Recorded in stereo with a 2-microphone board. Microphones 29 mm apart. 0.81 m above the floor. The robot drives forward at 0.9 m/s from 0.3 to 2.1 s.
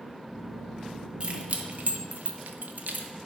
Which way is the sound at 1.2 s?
40° right (ahead or behind).